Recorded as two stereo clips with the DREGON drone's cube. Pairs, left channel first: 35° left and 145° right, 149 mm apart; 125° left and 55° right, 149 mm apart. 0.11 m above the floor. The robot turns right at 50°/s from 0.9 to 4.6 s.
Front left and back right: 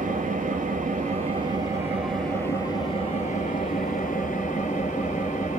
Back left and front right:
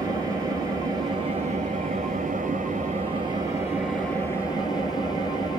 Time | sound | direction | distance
0.0 | an engine running | 120° right | 2.0 m